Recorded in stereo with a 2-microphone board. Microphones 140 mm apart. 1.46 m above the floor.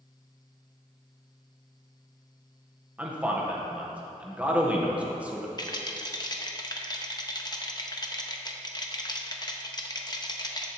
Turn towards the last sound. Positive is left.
turn(degrees=30)  # may be behind; listen again after turning